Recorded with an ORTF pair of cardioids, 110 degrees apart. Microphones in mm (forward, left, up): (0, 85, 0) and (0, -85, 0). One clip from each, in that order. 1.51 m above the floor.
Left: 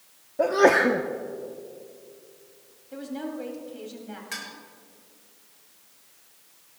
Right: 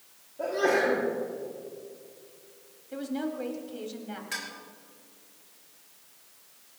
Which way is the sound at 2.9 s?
10° right.